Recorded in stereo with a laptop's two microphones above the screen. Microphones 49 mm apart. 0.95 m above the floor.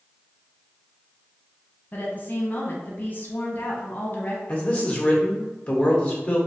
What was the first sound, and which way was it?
A woman speaking, 35° left (ahead or behind).